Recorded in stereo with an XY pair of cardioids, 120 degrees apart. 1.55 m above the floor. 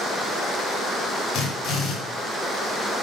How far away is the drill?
About 6.5 m.